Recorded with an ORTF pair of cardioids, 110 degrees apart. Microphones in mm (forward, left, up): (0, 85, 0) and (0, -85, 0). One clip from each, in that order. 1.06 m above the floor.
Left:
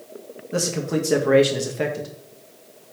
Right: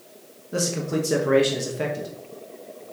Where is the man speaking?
15° left, 0.9 m.